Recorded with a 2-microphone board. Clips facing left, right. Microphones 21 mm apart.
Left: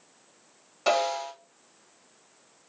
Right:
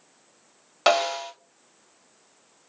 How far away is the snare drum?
About 0.8 m.